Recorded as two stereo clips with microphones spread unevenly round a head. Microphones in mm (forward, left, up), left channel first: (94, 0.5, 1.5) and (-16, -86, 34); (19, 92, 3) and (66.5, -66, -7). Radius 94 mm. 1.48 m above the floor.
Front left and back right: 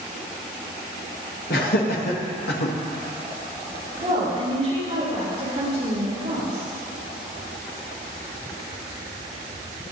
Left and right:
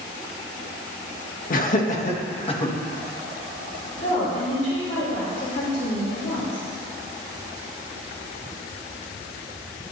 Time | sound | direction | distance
1.5 | laughter | 70° left | 2 m
4.0 | a woman speaking | 165° left | 6 m